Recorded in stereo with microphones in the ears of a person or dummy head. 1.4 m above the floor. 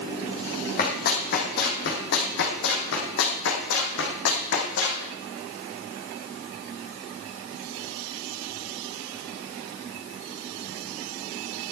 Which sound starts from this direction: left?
Running footsteps, at 0.8 s.